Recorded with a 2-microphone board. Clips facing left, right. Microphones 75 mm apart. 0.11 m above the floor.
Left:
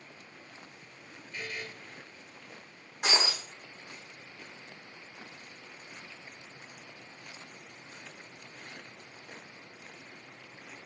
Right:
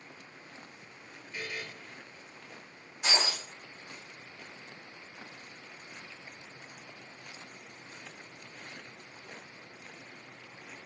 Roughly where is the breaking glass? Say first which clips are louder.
Left 1 dB; left.